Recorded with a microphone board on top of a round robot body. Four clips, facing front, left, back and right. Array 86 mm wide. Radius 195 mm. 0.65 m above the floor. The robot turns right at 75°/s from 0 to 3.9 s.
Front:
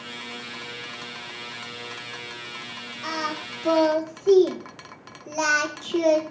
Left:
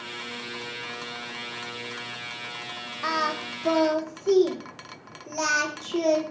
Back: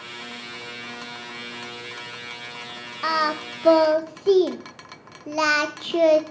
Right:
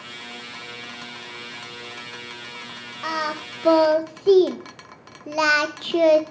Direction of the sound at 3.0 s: 170° left.